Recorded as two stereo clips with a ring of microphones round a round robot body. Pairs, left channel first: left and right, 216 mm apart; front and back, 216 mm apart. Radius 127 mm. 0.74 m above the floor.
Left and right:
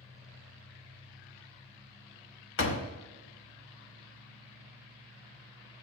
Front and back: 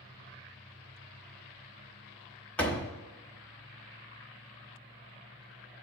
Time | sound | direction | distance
2.6 | a door slam | 85° left | 1.1 m